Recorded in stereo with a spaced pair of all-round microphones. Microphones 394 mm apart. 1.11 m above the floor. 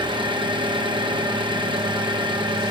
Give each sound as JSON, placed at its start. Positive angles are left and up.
{"t": 0.0, "sound": "an engine running", "side_deg": -10, "distance_m": 0.9}